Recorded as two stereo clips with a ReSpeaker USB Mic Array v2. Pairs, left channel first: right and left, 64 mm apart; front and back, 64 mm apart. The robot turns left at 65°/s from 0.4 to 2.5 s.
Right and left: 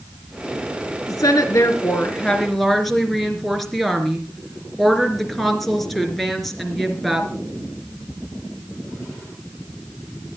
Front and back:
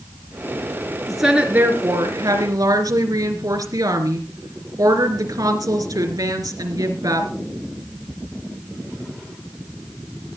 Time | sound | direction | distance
1.1 | a woman speaking | 85° right | 3 m